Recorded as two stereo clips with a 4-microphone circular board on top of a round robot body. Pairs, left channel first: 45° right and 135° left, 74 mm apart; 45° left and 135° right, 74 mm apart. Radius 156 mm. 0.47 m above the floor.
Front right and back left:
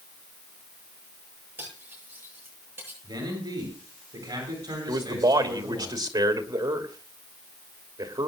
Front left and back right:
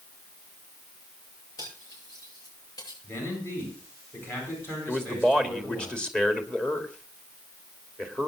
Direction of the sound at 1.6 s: 75° left.